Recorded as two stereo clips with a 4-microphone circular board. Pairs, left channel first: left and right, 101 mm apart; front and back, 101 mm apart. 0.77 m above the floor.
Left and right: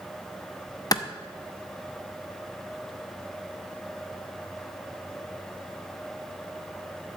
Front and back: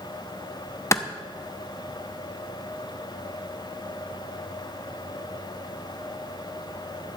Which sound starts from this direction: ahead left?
A clap, at 0.9 s.